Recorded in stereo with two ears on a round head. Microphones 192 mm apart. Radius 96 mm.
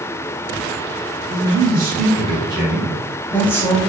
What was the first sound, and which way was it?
A man speaking, 50° right (ahead or behind).